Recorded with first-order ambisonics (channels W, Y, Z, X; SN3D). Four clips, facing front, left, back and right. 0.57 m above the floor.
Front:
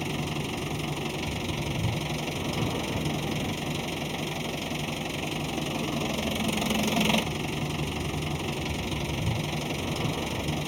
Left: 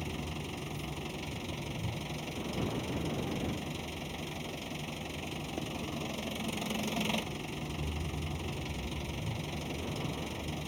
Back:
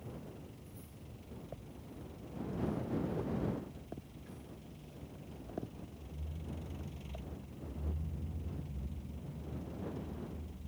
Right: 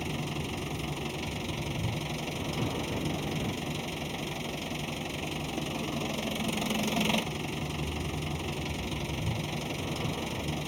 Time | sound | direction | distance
0.0 | an engine running | 15° right | ?